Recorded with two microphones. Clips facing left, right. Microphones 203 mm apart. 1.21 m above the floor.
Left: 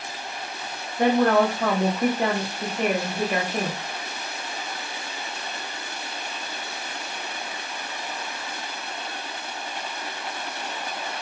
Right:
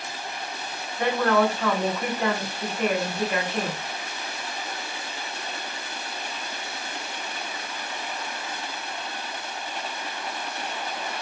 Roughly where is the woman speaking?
Left.